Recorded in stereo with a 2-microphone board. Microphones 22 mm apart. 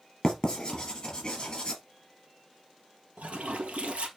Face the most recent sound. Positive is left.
turn(degrees=-75)  # may be behind; listen again after turning